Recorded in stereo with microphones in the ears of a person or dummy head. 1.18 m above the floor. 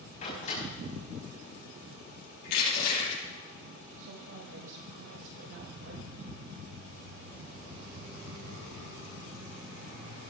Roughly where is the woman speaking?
Right.